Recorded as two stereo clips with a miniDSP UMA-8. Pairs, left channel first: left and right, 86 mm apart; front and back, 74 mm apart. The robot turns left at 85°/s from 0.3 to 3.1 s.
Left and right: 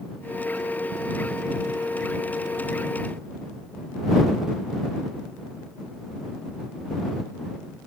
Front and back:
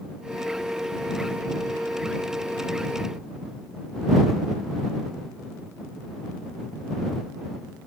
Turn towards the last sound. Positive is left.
No sound to turn to.